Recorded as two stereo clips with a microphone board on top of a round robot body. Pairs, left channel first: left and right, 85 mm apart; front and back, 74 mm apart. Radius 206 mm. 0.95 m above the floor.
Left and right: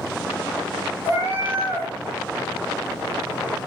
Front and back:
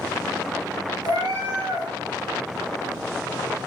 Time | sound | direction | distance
1.0 | a cat meowing | 150° right | 1.7 m